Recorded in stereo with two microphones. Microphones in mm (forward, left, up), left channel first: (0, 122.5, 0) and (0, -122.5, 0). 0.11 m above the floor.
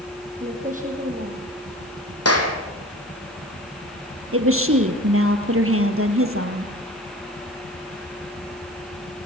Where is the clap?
75° left (ahead or behind), 4 m.